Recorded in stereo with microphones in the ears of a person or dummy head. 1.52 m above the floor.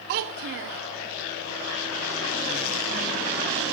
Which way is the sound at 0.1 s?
55° right (ahead or behind).